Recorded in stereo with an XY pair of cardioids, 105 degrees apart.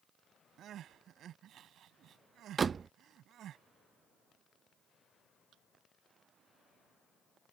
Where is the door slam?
40° right.